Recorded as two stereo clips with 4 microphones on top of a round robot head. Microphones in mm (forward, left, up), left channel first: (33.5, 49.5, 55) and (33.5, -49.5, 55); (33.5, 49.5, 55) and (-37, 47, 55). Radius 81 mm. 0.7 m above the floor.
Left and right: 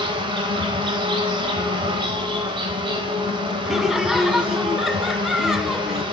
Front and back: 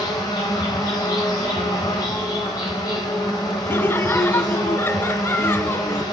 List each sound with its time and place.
0.0 s an insect: 50° right, 1.0 m
3.7 s laughter: 5° right, 0.5 m